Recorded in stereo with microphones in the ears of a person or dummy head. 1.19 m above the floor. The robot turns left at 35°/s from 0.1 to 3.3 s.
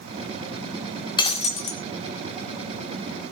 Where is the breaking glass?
30° left (ahead or behind), 1.9 m; by 1.8 s 50° left (ahead or behind), 1.9 m.